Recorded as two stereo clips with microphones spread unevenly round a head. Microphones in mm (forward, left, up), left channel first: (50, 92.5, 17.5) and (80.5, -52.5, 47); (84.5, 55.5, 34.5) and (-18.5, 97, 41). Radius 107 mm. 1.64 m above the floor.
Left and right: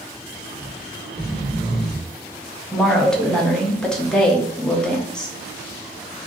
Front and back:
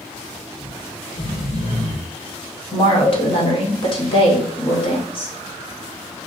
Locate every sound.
0.6 s snoring: 5° left, 1.0 m
2.7 s a woman speaking: 10° left, 0.9 m